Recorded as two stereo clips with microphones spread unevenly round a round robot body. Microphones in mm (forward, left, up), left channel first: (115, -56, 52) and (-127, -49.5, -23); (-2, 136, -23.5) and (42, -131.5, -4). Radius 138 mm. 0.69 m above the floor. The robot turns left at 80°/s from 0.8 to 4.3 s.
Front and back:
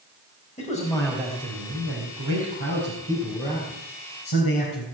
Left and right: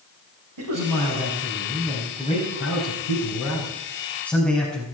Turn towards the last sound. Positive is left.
turn(degrees=15)